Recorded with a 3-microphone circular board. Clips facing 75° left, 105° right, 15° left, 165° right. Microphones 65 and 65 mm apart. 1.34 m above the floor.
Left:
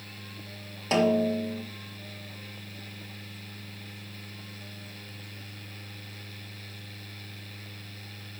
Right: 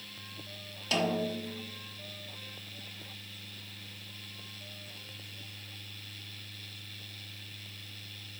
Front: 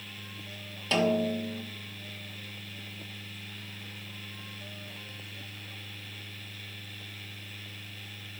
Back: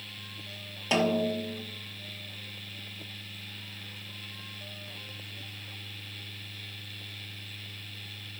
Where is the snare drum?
125° left, 1.0 m.